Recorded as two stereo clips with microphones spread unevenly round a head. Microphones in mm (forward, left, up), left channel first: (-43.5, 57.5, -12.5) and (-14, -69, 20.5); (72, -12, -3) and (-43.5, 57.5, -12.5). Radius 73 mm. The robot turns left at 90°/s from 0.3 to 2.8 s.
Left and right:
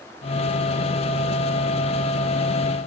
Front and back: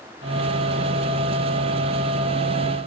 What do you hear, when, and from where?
Only background noise.